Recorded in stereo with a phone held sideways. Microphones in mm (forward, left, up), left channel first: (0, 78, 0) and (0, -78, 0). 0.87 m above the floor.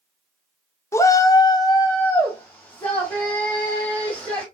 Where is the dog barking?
No dog barking in this recording.